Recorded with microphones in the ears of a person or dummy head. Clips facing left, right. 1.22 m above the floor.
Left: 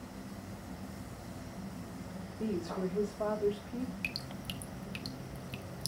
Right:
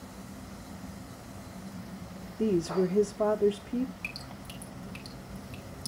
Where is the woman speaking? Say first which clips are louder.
Right 9 dB; 50° right (ahead or behind), 0.6 m.